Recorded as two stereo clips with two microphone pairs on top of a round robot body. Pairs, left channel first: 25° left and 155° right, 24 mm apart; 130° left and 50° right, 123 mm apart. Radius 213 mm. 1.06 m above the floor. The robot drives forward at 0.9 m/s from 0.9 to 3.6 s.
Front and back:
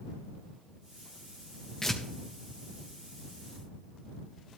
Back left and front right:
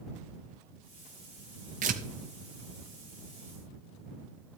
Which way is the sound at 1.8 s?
45° right.